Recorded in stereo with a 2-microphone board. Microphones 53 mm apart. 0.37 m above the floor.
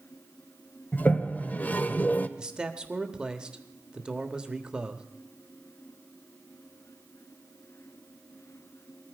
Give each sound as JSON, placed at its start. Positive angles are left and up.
{"t": 0.9, "sound": "a toilet flushing", "side_deg": 30, "distance_m": 0.7}
{"t": 2.4, "sound": "a man speaking", "side_deg": -15, "distance_m": 1.2}